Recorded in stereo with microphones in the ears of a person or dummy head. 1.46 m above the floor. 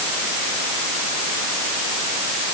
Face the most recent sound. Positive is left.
No sound to turn to.